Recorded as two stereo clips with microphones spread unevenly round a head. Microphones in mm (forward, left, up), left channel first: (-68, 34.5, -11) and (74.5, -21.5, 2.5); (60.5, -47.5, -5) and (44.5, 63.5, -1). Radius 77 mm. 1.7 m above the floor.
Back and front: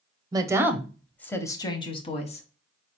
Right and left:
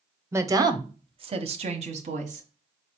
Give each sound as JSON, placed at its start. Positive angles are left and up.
{"t": 0.3, "sound": "a woman speaking", "azimuth_deg": 35, "distance_m": 0.8}